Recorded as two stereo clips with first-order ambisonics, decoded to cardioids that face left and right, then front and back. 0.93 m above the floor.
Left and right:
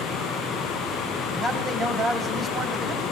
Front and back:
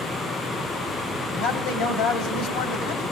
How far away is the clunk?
No clunk in this recording.